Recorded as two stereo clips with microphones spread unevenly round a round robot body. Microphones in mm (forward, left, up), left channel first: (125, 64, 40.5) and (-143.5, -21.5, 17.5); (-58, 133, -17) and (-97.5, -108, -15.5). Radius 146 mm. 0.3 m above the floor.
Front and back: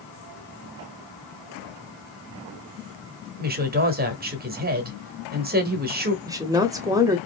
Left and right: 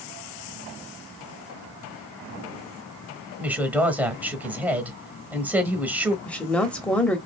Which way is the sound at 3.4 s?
Straight behind.